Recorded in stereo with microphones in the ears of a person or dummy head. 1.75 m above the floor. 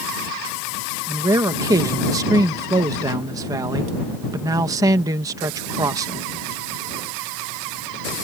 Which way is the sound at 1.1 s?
15° right (ahead or behind).